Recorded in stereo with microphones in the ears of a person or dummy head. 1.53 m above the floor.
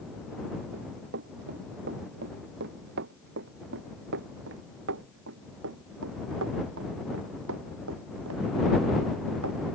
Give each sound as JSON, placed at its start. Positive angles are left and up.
{"t": 0.7, "sound": "running footsteps", "side_deg": -55}